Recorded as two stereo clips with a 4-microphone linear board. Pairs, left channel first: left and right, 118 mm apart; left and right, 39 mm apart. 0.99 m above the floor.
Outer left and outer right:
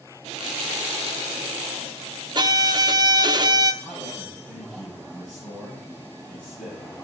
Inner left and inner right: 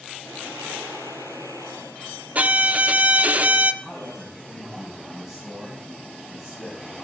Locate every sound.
2.4 s a violin: 35° right (ahead or behind), 0.6 m
3.8 s a man speaking: 10° right (ahead or behind), 6 m